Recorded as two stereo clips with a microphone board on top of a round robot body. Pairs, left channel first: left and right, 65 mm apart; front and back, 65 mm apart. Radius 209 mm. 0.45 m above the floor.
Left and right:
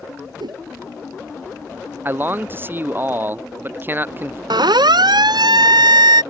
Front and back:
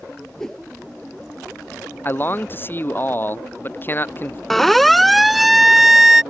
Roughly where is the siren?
Right.